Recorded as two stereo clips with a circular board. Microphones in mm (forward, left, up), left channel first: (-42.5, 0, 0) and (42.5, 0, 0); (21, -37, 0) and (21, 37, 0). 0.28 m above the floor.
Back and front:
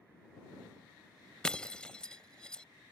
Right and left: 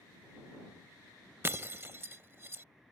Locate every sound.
1.4 s breaking glass: 110° left